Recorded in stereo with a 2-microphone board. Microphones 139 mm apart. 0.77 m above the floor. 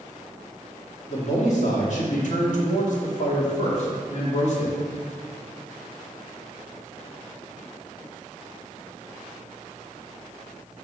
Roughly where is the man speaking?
Left.